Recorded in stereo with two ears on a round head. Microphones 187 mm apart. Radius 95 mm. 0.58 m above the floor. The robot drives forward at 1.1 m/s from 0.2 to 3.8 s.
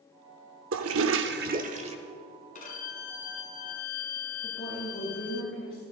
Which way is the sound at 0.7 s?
65° right (ahead or behind).